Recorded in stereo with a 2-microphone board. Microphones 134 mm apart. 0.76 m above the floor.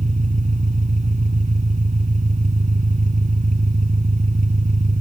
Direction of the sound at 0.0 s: 65° right (ahead or behind).